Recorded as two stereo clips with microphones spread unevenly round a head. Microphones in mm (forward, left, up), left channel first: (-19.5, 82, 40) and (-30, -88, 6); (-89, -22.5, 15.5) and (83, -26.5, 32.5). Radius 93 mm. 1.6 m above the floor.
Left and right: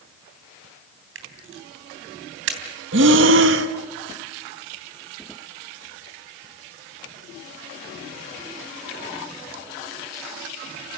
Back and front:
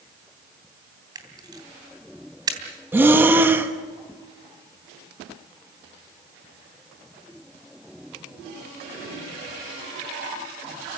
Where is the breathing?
75° right, 1.2 m.